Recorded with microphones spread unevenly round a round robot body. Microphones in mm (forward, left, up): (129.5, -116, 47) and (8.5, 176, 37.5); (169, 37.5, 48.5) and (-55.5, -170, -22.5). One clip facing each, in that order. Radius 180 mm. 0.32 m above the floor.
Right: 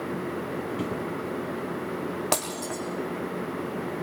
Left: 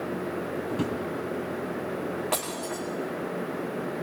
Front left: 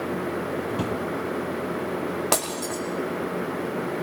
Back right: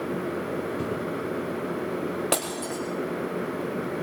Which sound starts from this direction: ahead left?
A drawer, at 0.7 s.